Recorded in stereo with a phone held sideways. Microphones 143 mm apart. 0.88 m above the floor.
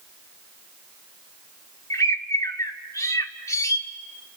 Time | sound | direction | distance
1.9 | a bird | 20° left (ahead or behind) | 1.5 m